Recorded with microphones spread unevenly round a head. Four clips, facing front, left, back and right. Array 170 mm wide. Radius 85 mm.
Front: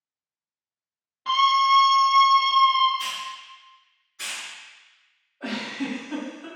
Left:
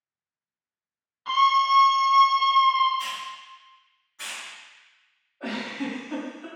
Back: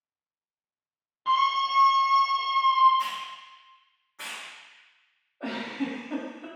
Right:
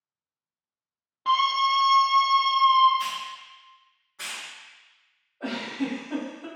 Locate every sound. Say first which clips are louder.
1.2 s a scream: left 2 dB, front 5 dB; 95° right, 0.6 m; by 2.9 s straight behind, 1.2 m
3.0 s a hiss: right 1 dB, back 3 dB; 150° right, 1.1 m
5.4 s a giggle: right 1 dB, front 1 dB; 165° right, 1.4 m